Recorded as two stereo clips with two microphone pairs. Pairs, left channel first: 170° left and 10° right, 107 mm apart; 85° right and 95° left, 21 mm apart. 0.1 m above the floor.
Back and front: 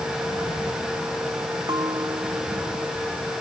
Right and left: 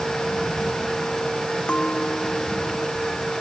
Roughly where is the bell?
Ahead right.